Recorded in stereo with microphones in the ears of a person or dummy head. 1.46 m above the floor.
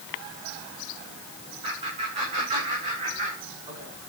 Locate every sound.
1.6 s laughter: 35° right (ahead or behind), 10 m; by 3.9 s 40° right (ahead or behind), 7.5 m